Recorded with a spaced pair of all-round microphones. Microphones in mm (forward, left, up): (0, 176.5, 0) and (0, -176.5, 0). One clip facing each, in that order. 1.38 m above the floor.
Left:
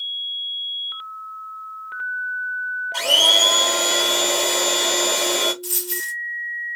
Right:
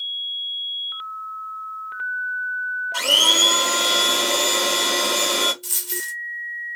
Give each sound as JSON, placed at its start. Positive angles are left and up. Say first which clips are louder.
{"t": 2.9, "sound": "a blender", "louder": "left 1 dB", "side_deg": -15, "distance_m": 1.5}
{"t": 5.6, "sound": "a dropped coin", "louder": "left 5 dB", "side_deg": -35, "distance_m": 1.5}